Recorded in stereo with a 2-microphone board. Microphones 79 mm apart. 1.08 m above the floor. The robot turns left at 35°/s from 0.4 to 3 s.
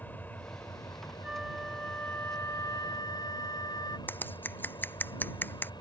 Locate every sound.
0.0 s an engine running: 155° left; by 5.8 s 65° left
1.2 s a flute: 170° right; by 4.0 s 125° left
4.1 s scissors: 20° left (ahead or behind)